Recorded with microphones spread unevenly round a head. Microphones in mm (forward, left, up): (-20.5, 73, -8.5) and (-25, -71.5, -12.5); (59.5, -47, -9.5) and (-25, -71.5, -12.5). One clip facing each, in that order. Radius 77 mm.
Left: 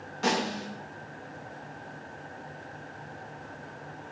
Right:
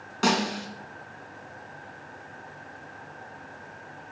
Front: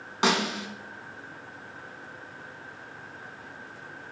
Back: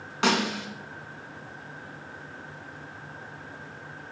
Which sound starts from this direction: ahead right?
A snare drum, at 0.2 s.